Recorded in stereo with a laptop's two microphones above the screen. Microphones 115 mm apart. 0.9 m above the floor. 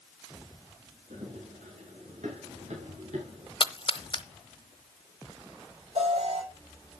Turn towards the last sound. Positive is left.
turn(degrees=-75)  # may be behind; listen again after turning